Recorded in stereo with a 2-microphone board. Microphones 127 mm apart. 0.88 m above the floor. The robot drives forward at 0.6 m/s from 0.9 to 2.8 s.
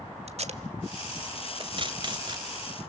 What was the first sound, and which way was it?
Tape being pulled, 55° right (ahead or behind).